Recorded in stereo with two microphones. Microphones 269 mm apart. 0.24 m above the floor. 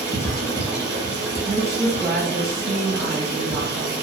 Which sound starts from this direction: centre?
Running water, at 0.0 s.